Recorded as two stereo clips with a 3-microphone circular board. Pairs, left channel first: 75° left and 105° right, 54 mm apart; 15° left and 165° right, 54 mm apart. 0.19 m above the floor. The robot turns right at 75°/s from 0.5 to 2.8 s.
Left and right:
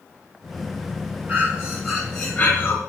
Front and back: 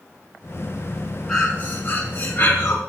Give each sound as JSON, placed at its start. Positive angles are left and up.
{"t": 1.3, "sound": "breathing", "azimuth_deg": -60, "distance_m": 1.7}